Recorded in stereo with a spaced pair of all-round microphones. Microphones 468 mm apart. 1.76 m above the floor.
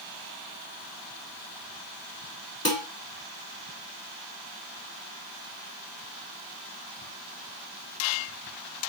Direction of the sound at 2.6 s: 30° left (ahead or behind).